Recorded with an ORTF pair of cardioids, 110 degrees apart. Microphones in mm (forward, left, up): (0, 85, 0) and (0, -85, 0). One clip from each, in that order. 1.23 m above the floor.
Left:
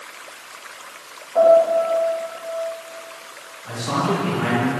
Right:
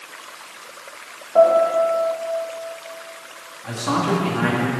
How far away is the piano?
About 1.7 m.